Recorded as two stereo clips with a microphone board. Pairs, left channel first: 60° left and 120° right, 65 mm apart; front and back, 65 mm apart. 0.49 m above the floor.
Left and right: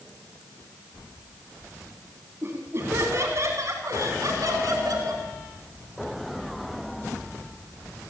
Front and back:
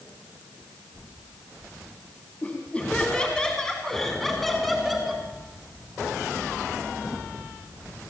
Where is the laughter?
70° right, 4 m; by 5.2 s 95° right, 5 m.